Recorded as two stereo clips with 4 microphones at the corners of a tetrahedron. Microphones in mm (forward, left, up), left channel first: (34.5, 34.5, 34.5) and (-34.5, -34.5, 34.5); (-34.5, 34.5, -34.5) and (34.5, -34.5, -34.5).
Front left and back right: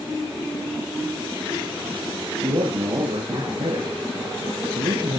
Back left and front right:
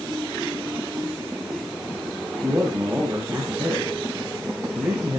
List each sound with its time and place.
2.4 s a man speaking: 110° right, 4.5 m